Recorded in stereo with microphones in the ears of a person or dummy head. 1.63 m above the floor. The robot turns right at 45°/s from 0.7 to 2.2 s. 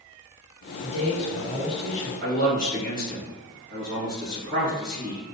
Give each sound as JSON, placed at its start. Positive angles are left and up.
{"t": 0.8, "sound": "a man speaking", "azimuth_deg": 125, "distance_m": 1.7}
{"t": 2.2, "sound": "a man speaking", "side_deg": -40, "distance_m": 1.8}